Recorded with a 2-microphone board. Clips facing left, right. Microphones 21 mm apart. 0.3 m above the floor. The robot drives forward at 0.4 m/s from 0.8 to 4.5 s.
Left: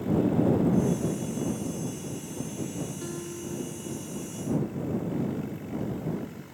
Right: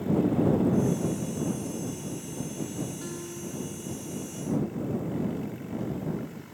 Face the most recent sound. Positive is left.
turn(degrees=-5)  # may be behind; listen again after turning